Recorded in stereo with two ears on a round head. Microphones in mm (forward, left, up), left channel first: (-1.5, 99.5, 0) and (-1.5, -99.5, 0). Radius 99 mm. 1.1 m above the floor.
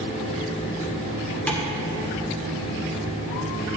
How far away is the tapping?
About 1.8 m.